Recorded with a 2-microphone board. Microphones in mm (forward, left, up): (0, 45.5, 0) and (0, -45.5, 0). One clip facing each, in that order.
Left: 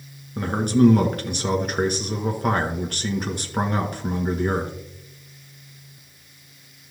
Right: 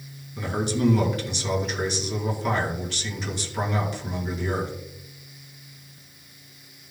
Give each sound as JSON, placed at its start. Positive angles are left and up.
{"t": 0.4, "sound": "a man speaking", "side_deg": 50, "distance_m": 1.8}